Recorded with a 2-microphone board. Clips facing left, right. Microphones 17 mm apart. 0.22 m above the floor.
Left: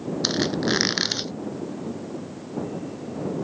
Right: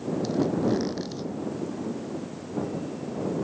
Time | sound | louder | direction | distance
0.2 | a squeak | left 2 dB | 60° left (ahead or behind) | ?